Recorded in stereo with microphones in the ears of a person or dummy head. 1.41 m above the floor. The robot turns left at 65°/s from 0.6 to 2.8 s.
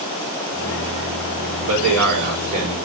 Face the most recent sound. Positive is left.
turn(degrees=-155)